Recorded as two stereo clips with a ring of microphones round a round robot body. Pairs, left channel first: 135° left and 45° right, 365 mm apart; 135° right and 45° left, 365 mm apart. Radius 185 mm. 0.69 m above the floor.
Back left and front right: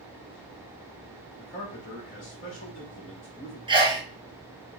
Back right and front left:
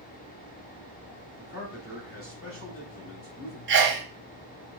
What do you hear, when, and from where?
1.4 s a man speaking: straight behind, 1.8 m
3.7 s a sneeze: 20° left, 0.9 m